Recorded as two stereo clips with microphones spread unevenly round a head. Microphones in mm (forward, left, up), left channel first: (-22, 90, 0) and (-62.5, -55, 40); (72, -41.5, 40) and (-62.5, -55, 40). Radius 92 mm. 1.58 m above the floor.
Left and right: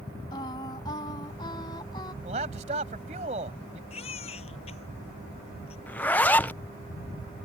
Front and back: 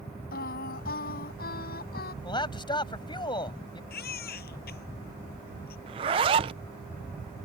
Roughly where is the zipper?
Behind.